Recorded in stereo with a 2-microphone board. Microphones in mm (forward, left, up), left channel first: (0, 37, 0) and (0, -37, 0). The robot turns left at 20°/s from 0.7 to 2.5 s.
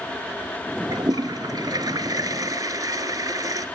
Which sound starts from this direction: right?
A toilet flushing, at 0.9 s.